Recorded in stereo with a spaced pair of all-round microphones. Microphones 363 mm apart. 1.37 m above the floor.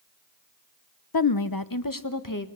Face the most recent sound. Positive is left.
turn(degrees=60)  # may be behind; listen again after turning